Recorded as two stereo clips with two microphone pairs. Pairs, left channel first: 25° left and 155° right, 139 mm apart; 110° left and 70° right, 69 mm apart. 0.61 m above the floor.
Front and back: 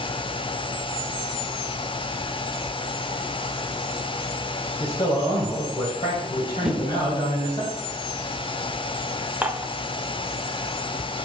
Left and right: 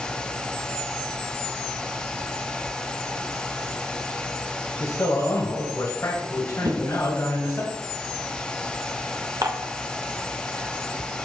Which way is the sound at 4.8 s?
65° left.